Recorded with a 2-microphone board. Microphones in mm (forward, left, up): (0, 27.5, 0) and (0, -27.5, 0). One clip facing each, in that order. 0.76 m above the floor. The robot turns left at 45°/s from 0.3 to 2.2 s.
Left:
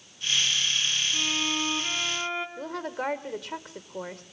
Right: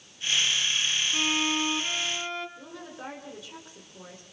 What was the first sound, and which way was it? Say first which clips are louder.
A violin: right 2 dB; 150° right.